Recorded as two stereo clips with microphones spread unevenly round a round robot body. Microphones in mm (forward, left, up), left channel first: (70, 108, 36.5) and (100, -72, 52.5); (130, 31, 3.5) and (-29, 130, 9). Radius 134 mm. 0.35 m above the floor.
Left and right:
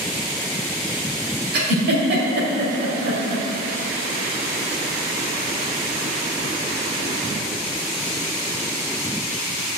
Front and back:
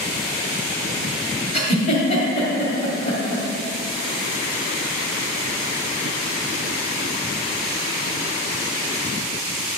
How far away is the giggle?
About 2 m.